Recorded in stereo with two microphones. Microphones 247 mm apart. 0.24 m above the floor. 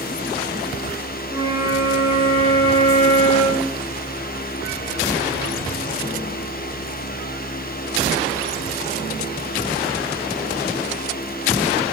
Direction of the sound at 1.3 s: 20° right (ahead or behind).